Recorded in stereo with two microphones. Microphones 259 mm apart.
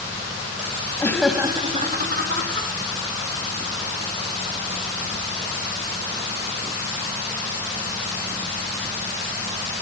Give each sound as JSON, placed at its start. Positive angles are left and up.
{"t": 1.0, "sound": "laughter", "side_deg": 15, "distance_m": 1.0}